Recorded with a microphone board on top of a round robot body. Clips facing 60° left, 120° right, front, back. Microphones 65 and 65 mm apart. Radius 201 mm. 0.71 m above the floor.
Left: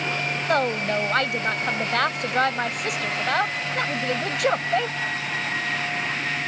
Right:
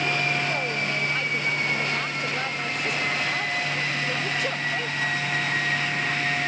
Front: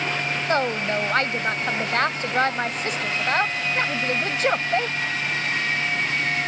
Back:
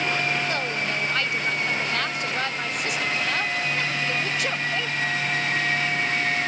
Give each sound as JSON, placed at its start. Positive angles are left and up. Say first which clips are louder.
{"t": 0.5, "sound": "a woman speaking", "louder": "left 5 dB, front 4 dB", "azimuth_deg": 50}